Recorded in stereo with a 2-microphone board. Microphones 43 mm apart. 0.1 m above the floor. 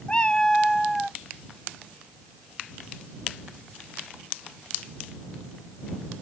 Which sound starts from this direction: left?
A cat meowing, at 0.1 s.